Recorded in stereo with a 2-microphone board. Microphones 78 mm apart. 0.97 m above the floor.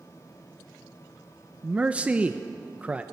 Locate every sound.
1.6 s a man speaking: 15° right (ahead or behind), 0.7 m